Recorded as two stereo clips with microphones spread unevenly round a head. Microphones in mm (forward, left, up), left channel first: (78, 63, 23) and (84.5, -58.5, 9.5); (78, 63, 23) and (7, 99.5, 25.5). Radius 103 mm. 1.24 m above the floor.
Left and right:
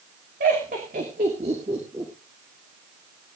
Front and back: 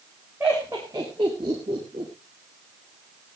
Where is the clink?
No clink in this recording.